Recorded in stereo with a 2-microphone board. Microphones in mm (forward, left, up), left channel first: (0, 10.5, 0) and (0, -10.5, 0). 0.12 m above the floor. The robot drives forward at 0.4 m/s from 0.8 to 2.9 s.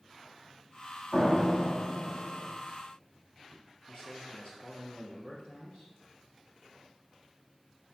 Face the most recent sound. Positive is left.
turn(degrees=50)  # may be behind; listen again after turning